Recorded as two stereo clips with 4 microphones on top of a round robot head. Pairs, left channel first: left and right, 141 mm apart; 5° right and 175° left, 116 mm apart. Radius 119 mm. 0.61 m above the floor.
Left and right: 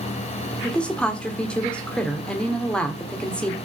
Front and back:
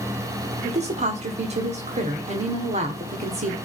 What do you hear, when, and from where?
0.6 s a woman speaking: 170° left, 1.6 m